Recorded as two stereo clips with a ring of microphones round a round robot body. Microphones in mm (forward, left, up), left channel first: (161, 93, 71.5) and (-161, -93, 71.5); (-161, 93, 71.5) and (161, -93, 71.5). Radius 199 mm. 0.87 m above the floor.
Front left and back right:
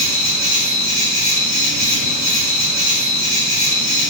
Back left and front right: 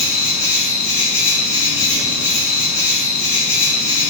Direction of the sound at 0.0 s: 160° left.